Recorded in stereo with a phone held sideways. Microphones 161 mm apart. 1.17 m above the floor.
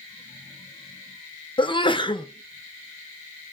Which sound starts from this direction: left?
A sneeze, at 1.6 s.